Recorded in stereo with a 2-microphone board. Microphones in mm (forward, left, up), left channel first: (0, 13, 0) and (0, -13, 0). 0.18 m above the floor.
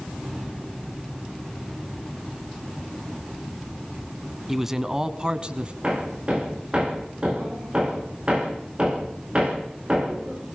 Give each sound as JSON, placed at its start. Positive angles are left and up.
{"t": 4.5, "sound": "a man speaking", "side_deg": -10, "distance_m": 2.0}
{"t": 5.8, "sound": "hammering", "side_deg": -35, "distance_m": 9.0}